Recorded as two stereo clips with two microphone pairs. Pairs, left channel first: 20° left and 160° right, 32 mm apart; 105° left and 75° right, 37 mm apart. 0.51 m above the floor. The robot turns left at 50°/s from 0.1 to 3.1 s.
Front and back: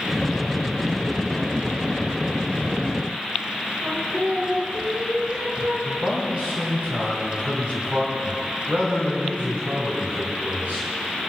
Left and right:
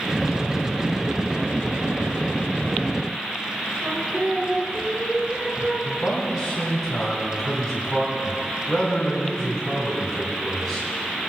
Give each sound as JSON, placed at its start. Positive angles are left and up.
{"t": 3.8, "sound": "singing", "azimuth_deg": -140, "distance_m": 5.0}
{"t": 5.8, "sound": "a man speaking", "azimuth_deg": 180, "distance_m": 4.0}